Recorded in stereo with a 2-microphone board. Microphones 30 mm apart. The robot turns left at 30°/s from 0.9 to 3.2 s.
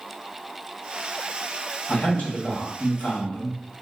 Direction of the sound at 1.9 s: 130° left.